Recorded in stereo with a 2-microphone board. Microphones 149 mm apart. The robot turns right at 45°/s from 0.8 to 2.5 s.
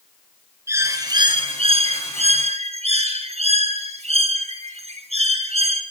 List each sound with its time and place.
0.7 s a bird: 155° right, 1.2 m; by 5.8 s 80° right, 1.2 m